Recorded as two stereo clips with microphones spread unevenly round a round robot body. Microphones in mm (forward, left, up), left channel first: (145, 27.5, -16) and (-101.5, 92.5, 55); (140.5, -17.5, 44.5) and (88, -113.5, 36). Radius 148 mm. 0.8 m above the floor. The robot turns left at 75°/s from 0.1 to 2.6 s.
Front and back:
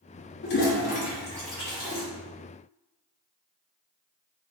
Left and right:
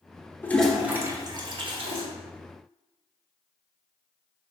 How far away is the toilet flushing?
About 0.7 m.